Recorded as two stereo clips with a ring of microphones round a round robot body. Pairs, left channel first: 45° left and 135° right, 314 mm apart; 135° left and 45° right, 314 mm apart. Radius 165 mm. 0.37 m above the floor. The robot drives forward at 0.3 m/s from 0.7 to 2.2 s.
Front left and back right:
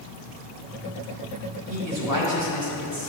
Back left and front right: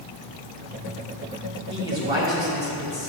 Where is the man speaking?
120° right, 2.5 m.